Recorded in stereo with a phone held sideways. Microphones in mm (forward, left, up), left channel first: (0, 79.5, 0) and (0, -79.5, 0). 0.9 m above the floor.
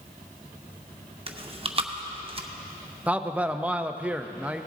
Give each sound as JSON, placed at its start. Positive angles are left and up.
{"t": 1.3, "sound": "chewing", "side_deg": -35, "distance_m": 0.7}
{"t": 3.1, "sound": "a man speaking", "side_deg": -10, "distance_m": 0.5}